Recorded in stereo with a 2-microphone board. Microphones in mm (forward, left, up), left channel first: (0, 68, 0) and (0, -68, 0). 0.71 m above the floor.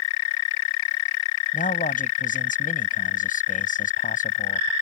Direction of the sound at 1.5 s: 80° left.